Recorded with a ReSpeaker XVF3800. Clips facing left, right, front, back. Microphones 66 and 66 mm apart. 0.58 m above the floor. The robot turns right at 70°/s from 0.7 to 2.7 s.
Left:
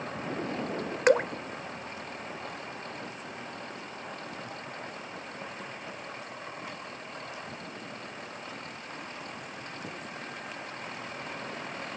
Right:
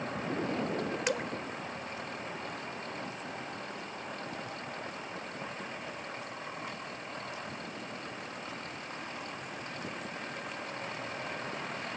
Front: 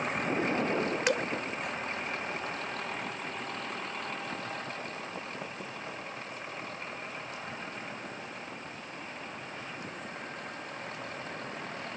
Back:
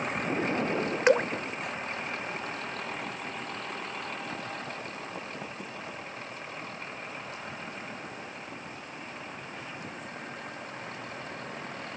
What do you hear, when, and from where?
1.1 s dripping: 125° left; by 1.3 s 140° left